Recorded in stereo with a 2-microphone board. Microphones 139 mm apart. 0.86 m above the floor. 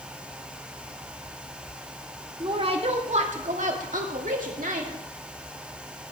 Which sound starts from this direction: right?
A woman speaking, at 2.4 s.